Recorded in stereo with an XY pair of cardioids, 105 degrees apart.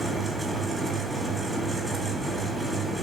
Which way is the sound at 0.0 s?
20° right.